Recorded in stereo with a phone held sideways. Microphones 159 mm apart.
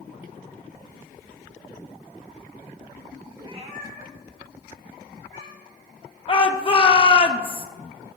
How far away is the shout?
About 0.6 m.